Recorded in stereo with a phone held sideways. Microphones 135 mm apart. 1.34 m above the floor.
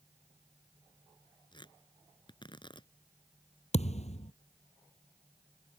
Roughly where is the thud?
Left.